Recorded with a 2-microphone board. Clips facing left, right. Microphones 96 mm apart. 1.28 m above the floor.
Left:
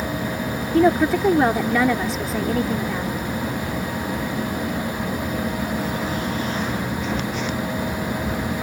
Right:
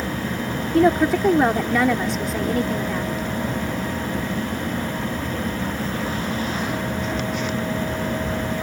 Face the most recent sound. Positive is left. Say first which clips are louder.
# even
turn(degrees=0)  # may be behind; listen again after turning